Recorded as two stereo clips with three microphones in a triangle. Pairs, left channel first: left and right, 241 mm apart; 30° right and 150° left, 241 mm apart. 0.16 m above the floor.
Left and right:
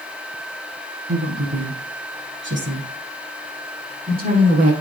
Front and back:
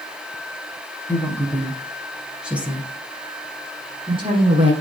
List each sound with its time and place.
1.1 s a woman speaking: 110° right, 4.5 m; by 4.7 s 145° right, 5 m